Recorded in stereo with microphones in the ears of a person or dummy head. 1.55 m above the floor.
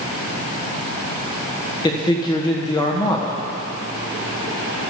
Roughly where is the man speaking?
Centre.